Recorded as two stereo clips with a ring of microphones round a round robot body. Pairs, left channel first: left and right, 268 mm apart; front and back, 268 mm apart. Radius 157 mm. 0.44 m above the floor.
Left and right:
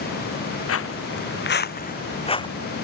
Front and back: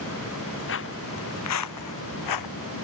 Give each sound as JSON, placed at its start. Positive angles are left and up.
{"t": 0.7, "sound": "footsteps", "azimuth_deg": 55}